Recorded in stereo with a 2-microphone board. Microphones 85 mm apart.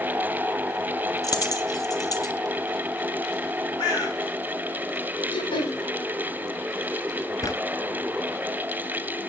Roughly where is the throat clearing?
Left.